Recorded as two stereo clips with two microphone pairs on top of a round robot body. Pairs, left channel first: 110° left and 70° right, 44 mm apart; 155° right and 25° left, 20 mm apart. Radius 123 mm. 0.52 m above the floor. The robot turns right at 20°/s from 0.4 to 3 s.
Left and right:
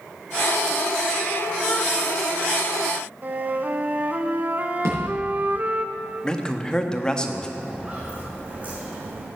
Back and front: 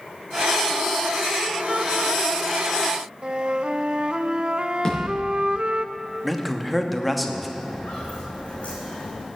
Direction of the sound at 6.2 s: 90° left.